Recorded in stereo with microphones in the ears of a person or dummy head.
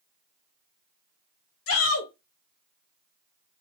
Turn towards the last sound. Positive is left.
turn(degrees=60)  # may be behind; listen again after turning